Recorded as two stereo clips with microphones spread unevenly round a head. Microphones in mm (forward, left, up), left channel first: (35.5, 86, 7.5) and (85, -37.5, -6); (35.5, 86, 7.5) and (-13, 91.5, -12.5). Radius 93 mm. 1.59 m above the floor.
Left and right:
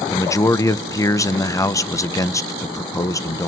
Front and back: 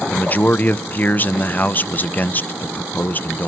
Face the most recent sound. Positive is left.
turn(degrees=45)